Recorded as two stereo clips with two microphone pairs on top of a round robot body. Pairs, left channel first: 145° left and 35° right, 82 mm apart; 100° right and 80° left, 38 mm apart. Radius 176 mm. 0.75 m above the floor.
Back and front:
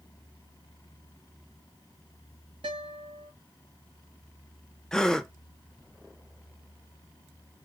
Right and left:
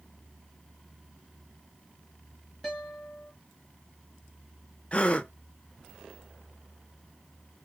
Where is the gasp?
125° right, 0.9 m.